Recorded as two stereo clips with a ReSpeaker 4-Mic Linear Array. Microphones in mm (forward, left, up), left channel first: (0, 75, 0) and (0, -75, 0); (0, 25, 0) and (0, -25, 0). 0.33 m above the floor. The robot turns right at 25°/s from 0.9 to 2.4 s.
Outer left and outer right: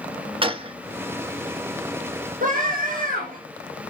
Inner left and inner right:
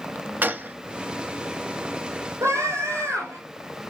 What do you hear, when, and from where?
0.4 s a gunshot: 40° right (ahead or behind), 0.8 m
2.4 s a scream: 70° right (ahead or behind), 6 m